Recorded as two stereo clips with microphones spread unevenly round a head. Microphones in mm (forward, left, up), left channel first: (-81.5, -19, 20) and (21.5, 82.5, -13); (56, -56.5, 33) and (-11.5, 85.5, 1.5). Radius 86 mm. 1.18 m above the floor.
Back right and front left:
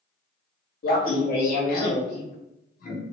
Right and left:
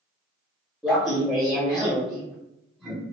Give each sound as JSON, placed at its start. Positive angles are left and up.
{"t": 0.8, "sound": "laughter", "azimuth_deg": -160, "distance_m": 1.2}